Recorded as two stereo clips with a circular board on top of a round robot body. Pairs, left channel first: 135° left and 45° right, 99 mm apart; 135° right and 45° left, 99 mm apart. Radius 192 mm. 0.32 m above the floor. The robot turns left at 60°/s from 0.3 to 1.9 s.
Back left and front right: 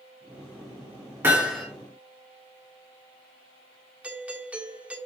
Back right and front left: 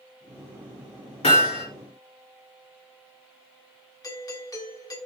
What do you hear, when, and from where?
1.2 s hammering: 115° right, 3 m; by 1.6 s 140° right, 3 m
4.0 s a doorbell: 115° right, 1.7 m